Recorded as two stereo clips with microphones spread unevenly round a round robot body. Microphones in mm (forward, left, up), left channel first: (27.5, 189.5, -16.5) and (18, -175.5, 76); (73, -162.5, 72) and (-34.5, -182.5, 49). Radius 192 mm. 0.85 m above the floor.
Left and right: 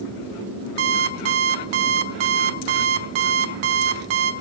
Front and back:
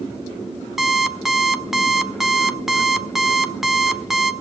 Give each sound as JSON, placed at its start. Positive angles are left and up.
{"t": 0.8, "sound": "an alarm clock", "azimuth_deg": -80, "distance_m": 1.6}